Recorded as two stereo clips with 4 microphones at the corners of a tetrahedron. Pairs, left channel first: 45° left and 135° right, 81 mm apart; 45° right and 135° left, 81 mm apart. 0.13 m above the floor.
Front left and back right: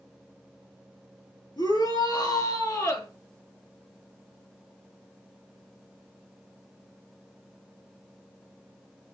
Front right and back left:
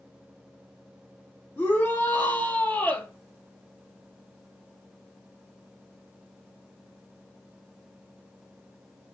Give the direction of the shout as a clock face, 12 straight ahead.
11 o'clock.